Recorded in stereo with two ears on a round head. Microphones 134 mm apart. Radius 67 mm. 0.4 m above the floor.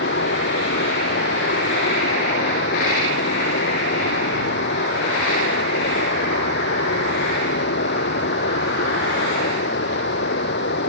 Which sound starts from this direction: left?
Running water, at 0.0 s.